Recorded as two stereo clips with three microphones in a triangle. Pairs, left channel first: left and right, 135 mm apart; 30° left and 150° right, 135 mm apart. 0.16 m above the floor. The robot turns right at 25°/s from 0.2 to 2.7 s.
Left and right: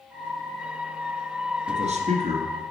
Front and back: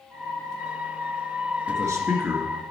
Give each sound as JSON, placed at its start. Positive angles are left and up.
{"t": 1.7, "sound": "a man speaking", "azimuth_deg": -90, "distance_m": 2.0}